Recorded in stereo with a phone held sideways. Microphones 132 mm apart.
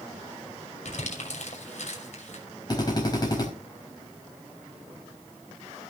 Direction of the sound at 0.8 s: 60° left (ahead or behind).